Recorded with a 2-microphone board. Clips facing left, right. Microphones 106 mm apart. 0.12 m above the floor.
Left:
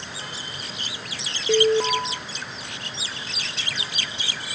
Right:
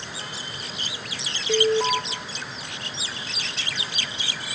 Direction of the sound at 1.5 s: 45° left (ahead or behind).